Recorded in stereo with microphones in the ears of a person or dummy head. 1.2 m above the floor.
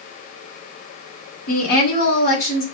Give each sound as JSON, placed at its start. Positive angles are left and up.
{"t": 1.5, "sound": "a woman speaking", "side_deg": 55, "distance_m": 3.0}